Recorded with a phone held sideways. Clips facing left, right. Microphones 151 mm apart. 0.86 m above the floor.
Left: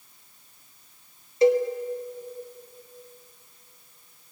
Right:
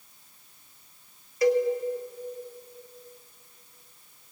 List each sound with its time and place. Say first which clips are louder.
1.4 s a cowbell: left 3 dB; 25° left (ahead or behind), 1.9 m